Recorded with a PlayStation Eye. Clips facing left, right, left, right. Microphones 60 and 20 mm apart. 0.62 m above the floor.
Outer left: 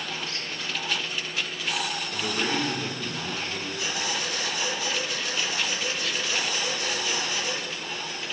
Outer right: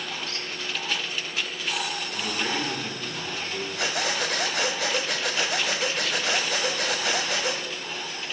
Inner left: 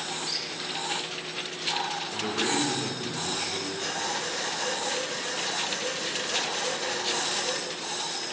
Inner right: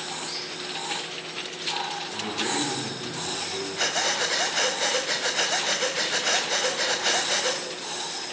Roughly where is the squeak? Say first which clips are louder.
Even, inner left 2 dB; left.